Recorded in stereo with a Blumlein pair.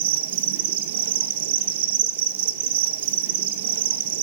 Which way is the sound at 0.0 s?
55° right.